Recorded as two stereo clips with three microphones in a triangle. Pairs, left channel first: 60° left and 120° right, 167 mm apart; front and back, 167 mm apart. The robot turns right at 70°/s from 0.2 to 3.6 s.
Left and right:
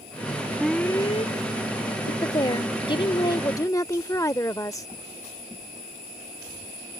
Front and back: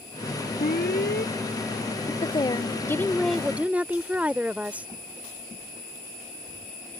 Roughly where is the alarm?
Ahead right.